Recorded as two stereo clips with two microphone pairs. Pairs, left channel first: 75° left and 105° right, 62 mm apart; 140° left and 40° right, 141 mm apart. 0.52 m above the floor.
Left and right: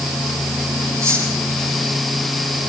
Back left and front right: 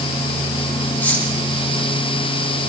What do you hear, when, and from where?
1.0 s cutlery clinking: 140° right, 10 m